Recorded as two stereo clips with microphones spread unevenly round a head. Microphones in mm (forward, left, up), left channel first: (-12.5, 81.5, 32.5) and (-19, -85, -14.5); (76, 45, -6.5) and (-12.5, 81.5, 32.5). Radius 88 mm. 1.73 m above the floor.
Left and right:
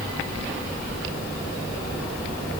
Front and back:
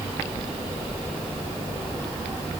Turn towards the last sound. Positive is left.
No sound to turn to.